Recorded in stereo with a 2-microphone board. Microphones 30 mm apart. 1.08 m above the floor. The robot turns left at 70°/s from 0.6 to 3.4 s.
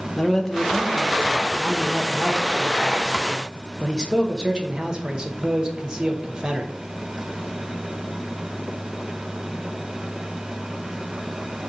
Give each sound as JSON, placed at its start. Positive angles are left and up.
{"t": 0.2, "sound": "a man speaking", "azimuth_deg": 165, "distance_m": 0.7}